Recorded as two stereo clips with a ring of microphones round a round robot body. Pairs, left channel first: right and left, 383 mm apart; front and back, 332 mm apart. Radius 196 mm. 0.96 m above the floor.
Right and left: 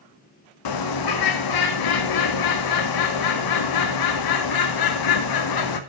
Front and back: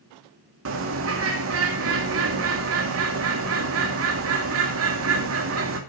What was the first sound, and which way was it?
A bird, 125° right.